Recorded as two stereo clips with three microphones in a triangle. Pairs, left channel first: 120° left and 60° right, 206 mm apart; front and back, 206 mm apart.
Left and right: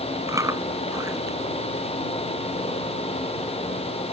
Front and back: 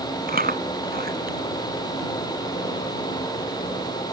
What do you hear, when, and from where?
0.3 s chewing: 135° right